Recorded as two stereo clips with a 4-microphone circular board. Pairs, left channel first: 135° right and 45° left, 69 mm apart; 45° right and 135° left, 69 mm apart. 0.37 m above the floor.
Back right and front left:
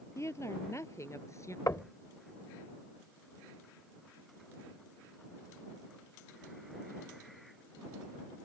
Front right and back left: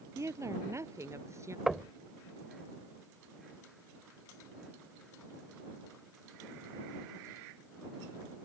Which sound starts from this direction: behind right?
Knocking, at 1.7 s.